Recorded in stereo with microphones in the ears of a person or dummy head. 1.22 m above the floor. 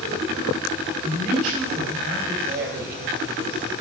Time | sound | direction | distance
1.0 | a man speaking | 45° right (ahead or behind) | 3.5 m
2.4 | a woman speaking | 50° right (ahead or behind) | 1.8 m